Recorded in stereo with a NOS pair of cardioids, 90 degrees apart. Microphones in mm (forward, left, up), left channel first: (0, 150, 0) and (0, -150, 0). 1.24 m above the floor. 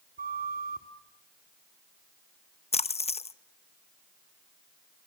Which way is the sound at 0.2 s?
30° right.